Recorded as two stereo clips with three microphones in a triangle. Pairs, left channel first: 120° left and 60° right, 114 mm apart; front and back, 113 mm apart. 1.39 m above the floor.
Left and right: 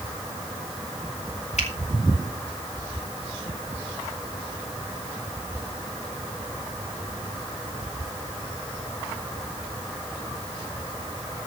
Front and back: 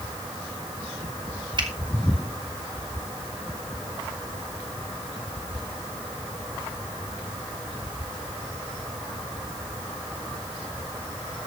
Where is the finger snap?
130° left, 3 m.